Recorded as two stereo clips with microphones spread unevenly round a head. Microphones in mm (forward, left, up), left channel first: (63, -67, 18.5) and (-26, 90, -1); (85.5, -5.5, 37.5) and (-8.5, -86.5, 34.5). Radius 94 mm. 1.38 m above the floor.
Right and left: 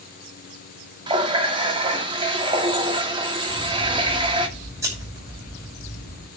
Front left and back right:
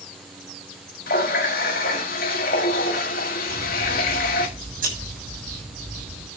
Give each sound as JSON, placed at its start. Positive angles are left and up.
{"t": 1.1, "sound": "a running tap", "azimuth_deg": 55, "distance_m": 1.9}
{"t": 3.5, "sound": "scissors", "azimuth_deg": -165, "distance_m": 6.5}